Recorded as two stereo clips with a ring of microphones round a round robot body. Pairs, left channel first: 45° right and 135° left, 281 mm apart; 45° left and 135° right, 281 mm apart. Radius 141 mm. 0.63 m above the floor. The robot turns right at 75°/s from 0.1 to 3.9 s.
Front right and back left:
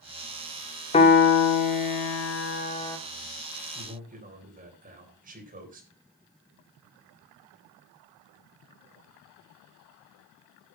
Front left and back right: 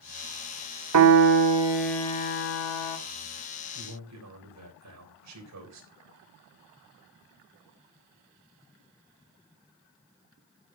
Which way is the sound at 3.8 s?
175° right.